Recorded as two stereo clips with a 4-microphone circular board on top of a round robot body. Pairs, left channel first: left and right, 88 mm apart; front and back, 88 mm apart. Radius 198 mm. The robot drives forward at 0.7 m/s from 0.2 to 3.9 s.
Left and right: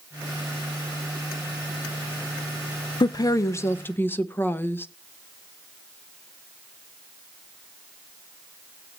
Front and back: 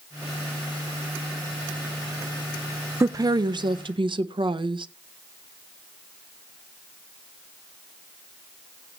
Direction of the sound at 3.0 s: 125° left.